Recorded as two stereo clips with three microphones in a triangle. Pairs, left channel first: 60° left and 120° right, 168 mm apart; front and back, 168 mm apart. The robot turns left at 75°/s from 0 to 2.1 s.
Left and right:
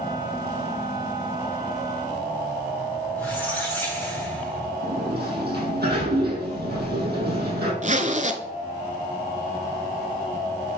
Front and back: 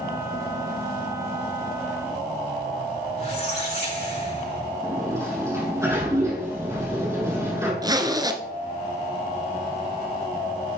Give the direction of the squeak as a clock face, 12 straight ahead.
1 o'clock.